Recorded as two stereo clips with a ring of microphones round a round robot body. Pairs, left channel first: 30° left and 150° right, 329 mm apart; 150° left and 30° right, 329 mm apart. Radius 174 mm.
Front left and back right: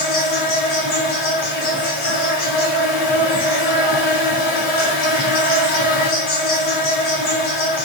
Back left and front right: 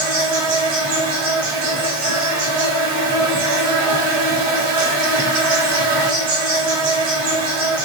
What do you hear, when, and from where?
0.0 s an insect: 35° right, 1.1 m